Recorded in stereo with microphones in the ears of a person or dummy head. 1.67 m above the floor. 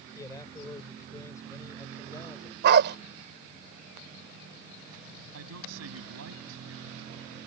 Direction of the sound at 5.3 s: 85° right.